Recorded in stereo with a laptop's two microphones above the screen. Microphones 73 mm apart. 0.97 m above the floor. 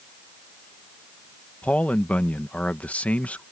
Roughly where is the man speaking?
Centre.